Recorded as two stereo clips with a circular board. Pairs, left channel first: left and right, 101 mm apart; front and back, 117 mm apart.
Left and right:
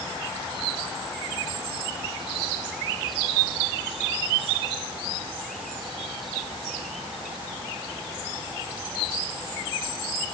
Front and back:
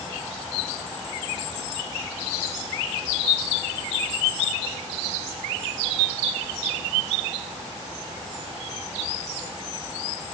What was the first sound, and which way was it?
Only background noise.